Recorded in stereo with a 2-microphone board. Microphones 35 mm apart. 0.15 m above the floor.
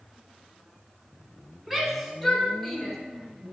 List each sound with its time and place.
1.7 s a shout: 10° right (ahead or behind), 1.1 m; by 3.0 s centre (ahead or behind), 1.6 m